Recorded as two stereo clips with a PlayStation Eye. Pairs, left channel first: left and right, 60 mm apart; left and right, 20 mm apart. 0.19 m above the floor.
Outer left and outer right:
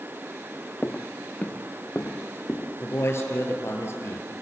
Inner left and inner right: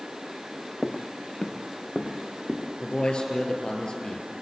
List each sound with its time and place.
0.8 s footsteps: 20° left (ahead or behind), 0.9 m; by 2.7 s 30° left (ahead or behind), 3 m
2.8 s a man speaking: 45° left (ahead or behind), 4 m